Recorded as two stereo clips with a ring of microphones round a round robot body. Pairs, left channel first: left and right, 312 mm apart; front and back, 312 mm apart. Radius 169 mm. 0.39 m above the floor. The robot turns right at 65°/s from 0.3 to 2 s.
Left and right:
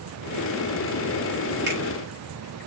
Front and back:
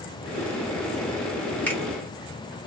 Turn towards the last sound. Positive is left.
turn(degrees=-60)